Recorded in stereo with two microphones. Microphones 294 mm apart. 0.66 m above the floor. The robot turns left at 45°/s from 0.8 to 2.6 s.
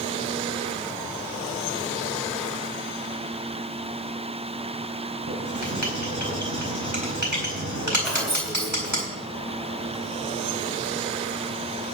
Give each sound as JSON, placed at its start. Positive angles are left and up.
{"t": 5.3, "sound": "writing", "side_deg": -75, "distance_m": 4.5}
{"t": 8.0, "sound": "keys jangling", "side_deg": 0, "distance_m": 6.0}